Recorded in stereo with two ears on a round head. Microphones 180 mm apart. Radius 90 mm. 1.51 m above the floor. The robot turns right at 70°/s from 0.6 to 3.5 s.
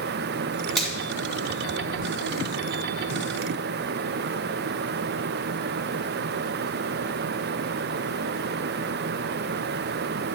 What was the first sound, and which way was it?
A finger snap, 5° left (ahead or behind).